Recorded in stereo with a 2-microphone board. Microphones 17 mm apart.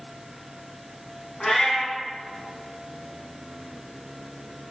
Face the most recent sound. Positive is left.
turn(degrees=35)  # may be behind; listen again after turning